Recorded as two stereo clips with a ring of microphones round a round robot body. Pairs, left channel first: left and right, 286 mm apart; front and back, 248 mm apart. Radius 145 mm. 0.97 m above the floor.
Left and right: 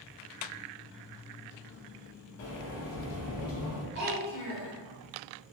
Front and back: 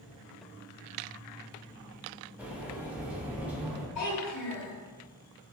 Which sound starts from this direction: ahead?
A child speaking, at 4.0 s.